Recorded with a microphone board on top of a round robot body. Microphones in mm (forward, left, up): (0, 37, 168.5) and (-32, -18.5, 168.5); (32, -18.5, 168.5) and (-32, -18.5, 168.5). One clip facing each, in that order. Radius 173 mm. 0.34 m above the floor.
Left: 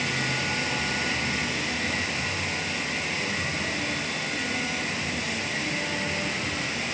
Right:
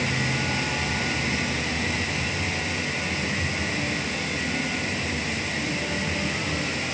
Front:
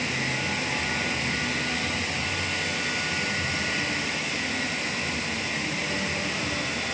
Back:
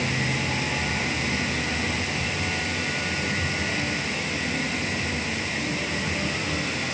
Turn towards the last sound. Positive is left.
No sound to turn to.